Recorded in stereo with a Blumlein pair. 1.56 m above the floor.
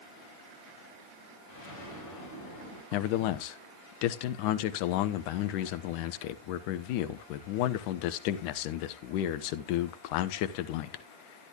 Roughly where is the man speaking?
Ahead left.